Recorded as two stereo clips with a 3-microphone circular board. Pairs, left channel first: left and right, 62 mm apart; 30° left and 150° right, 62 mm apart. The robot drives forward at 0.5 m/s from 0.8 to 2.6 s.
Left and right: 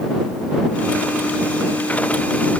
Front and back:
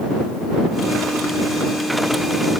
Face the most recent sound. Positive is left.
No sound to turn to.